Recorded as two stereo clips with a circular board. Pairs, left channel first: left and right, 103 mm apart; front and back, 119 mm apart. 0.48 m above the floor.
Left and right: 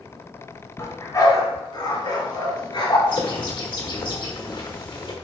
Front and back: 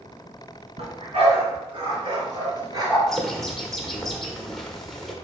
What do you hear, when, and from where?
0.8 s a dog barking: 150° left, 2.5 m; by 3.0 s 125° left, 3 m
3.1 s a bird: 85° left, 1.2 m